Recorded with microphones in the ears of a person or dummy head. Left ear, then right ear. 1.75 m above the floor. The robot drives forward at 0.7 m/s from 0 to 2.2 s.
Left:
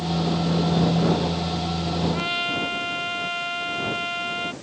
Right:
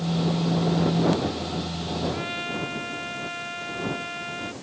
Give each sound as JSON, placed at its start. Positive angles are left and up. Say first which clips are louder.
{"t": 2.1, "sound": "a trumpet", "louder": "left 5 dB", "side_deg": 20}